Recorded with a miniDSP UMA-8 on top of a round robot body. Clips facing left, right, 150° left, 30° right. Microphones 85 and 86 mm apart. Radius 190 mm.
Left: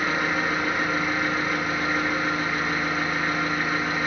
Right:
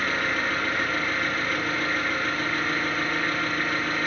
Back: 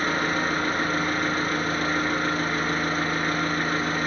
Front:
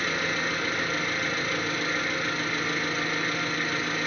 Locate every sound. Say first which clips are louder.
0.0 s an engine running: left 2 dB, back 4 dB; 160° left, 0.8 m